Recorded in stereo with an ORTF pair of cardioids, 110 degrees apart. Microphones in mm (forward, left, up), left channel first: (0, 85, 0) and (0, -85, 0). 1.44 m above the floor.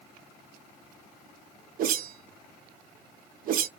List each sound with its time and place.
1.8 s a whoosh: 60° right, 0.7 m